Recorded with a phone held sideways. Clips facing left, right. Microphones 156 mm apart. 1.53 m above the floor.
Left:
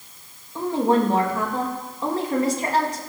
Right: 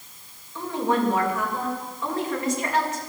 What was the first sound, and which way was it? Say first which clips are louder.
A woman speaking: left 4 dB; 35° left (ahead or behind).